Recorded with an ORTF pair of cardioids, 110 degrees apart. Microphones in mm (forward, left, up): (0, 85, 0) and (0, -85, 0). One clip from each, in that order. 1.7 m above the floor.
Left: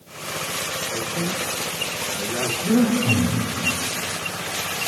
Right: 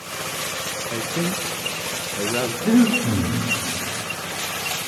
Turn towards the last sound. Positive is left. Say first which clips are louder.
# right 2 dB
turn(degrees=-40)